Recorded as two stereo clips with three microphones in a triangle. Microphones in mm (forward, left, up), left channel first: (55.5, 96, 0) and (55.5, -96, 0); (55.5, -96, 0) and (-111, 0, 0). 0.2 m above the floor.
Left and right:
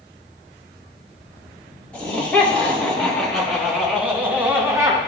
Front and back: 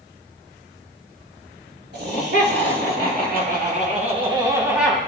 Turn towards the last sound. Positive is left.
turn(degrees=-105)